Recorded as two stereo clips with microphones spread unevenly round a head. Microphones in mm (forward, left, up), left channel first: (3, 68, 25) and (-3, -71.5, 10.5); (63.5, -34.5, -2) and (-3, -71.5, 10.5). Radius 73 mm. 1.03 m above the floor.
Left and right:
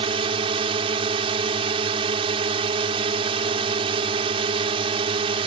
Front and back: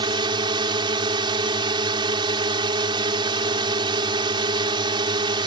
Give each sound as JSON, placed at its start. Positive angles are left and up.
{"t": 0.0, "sound": "a drone", "azimuth_deg": -145}